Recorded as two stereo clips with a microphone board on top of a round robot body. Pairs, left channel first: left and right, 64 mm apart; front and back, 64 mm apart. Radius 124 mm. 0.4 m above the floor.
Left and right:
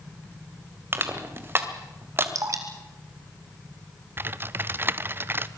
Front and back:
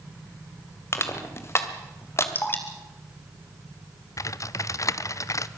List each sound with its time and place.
0.9 s crushing: 45° right, 2.5 m
2.4 s dripping: 55° right, 2 m
4.2 s typing on a keyboard: 35° right, 0.6 m